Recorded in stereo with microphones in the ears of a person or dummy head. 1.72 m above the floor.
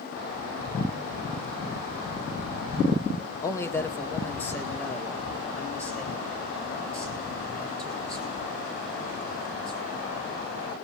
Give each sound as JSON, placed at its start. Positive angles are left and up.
{"t": 3.4, "sound": "a man speaking", "side_deg": 25, "distance_m": 1.2}